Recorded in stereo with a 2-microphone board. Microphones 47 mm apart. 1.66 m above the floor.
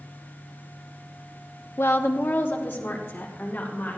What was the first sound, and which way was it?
A woman speaking, 55° left (ahead or behind).